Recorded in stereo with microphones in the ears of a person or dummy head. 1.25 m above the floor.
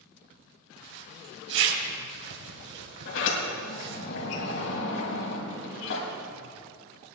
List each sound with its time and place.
0.8 s a zipper: 70° right (ahead or behind), 3.5 m
3.0 s a sliding door: 70° left (ahead or behind), 4.5 m